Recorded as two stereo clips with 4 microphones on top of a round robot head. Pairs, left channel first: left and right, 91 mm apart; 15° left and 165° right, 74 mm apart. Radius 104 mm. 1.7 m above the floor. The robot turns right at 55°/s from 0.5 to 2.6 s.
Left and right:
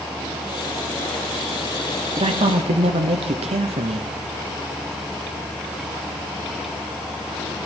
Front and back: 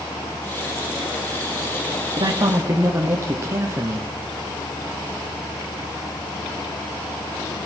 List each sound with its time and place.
2.2 s a man speaking: 130° right, 0.9 m; by 4.1 s 105° right, 0.9 m